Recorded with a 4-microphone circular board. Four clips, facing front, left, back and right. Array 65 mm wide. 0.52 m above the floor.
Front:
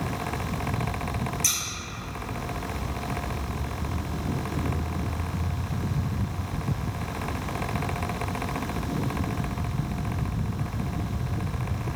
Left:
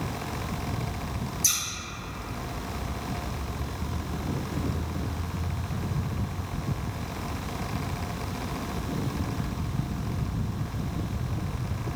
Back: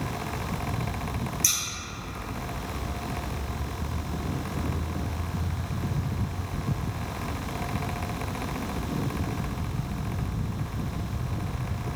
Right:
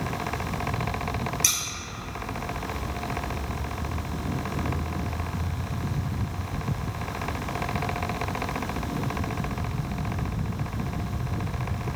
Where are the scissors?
75° right, 0.7 m.